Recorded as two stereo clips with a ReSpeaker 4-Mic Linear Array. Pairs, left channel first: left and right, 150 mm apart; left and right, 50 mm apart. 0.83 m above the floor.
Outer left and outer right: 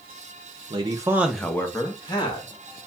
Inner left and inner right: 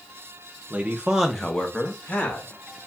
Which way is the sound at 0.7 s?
35° right (ahead or behind).